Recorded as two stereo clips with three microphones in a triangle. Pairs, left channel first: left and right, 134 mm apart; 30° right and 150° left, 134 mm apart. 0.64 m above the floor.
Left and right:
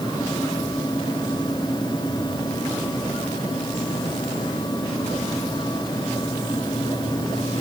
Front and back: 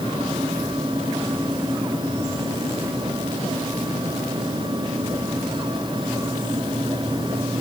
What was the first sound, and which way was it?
Only background noise.